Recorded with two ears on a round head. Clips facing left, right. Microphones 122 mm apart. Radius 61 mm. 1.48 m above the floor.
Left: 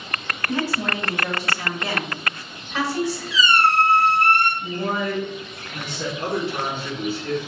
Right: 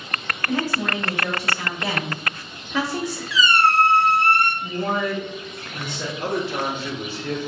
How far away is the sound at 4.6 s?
About 1.8 m.